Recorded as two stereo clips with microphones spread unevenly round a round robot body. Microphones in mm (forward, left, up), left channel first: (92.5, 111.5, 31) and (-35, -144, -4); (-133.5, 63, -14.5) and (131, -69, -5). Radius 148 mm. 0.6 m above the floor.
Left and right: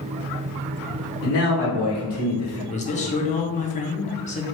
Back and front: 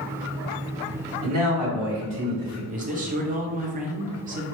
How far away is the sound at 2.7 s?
About 0.6 m.